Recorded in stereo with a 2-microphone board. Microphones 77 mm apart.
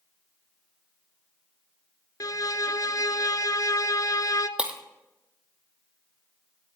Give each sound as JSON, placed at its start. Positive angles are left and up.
{"t": 2.2, "sound": "a violin", "side_deg": 50, "distance_m": 0.9}
{"t": 4.6, "sound": "breaking glass", "side_deg": -15, "distance_m": 1.7}